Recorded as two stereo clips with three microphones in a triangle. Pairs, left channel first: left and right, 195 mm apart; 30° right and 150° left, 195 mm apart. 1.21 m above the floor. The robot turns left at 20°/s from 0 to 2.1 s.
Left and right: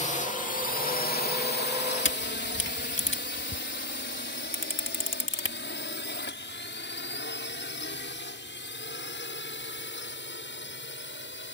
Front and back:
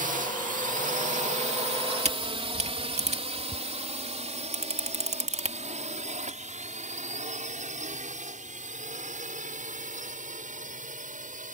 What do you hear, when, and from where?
0.0 s a drone: 125° left; by 11.5 s 105° left
2.0 s a camera shutter: 95° left